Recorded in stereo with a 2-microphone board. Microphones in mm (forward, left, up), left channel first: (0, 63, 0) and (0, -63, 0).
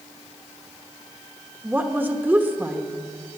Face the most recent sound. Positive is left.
turn(degrees=-15)  # may be behind; listen again after turning